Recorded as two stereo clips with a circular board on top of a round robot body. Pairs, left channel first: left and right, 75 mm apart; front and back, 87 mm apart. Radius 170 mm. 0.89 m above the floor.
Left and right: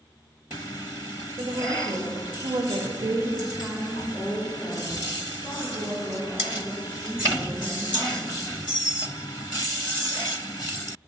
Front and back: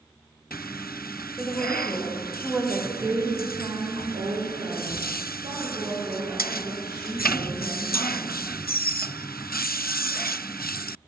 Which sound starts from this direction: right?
A woman speaking, at 1.4 s.